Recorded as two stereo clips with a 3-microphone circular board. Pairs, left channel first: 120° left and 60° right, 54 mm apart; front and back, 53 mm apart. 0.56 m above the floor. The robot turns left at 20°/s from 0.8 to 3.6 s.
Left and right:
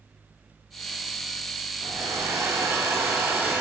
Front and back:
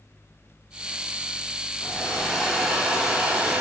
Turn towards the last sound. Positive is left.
turn(degrees=-110)